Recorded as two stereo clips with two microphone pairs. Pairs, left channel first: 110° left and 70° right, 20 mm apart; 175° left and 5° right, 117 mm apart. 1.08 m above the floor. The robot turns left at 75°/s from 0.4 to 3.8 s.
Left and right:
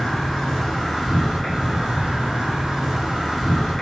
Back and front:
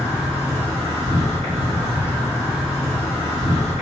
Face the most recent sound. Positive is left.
turn(degrees=180)